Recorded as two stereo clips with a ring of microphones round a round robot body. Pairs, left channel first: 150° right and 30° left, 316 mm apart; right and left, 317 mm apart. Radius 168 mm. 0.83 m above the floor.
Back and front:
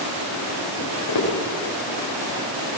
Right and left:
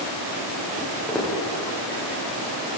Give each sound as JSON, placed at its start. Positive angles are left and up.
{"t": 0.8, "sound": "footsteps", "azimuth_deg": -175, "distance_m": 9.0}